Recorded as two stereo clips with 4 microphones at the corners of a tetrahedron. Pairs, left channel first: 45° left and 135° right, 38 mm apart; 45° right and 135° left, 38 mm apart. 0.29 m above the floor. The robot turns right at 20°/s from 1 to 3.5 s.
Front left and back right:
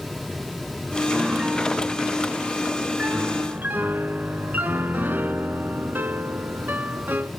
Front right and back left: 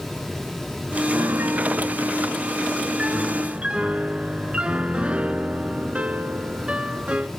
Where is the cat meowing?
No cat meowing in this recording.